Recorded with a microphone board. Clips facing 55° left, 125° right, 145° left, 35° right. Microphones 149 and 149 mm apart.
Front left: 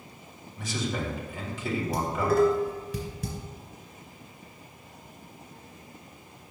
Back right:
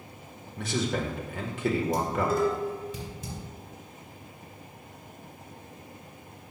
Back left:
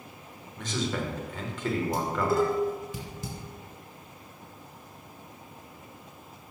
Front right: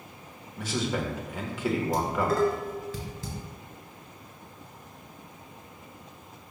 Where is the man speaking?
115° right, 1.3 m.